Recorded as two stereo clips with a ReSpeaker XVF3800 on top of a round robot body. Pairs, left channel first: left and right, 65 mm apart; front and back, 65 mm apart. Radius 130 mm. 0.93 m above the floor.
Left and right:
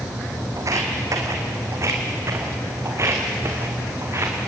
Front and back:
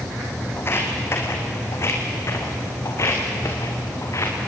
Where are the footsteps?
55° right, 2.5 m; by 4.5 s 40° right, 5 m.